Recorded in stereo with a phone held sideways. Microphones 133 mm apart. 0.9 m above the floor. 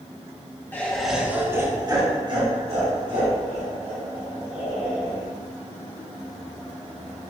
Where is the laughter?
15° left (ahead or behind), 1.3 m; by 5.2 s 70° right (ahead or behind), 4.5 m.